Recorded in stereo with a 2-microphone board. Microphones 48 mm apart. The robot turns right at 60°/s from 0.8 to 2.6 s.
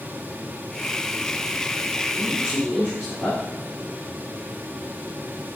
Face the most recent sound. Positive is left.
turn(degrees=30)  # may be behind; listen again after turning